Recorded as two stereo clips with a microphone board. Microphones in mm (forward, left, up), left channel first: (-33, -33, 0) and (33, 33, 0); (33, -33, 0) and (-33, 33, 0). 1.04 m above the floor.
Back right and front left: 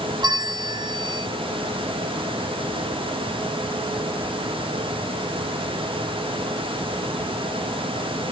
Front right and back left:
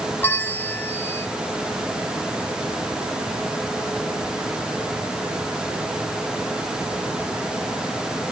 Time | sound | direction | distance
0.2 | a bell | 20° left | 0.8 m